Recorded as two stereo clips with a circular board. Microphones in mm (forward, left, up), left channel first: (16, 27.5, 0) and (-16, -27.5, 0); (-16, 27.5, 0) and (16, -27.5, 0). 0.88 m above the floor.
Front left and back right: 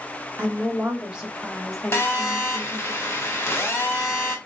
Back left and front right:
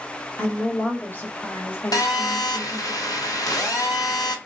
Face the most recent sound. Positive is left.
turn(degrees=110)